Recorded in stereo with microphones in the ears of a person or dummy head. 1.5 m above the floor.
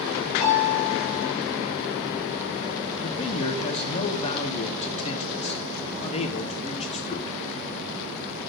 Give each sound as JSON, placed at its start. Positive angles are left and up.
{"t": 0.4, "sound": "a piano", "side_deg": 30, "distance_m": 7.0}
{"t": 3.0, "sound": "a man speaking", "side_deg": 35, "distance_m": 1.2}